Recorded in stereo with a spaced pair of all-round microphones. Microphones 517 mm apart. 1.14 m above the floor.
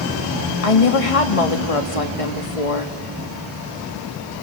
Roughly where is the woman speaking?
Left.